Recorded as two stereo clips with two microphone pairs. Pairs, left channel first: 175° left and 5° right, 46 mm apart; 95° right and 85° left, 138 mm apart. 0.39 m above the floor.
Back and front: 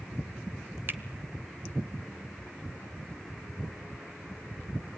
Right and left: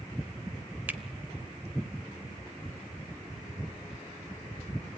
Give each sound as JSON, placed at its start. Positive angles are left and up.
{"t": 0.9, "sound": "a finger snap", "azimuth_deg": 10, "distance_m": 1.1}